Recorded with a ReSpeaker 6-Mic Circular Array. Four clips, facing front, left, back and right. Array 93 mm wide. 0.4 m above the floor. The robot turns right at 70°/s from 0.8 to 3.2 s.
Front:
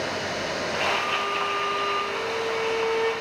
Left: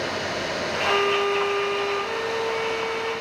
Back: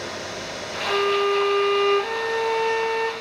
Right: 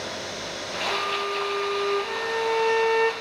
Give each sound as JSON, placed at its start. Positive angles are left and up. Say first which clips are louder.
{"t": 0.8, "sound": "a violin", "louder": "left 6 dB, back 10 dB", "azimuth_deg": 95, "distance_m": 0.6}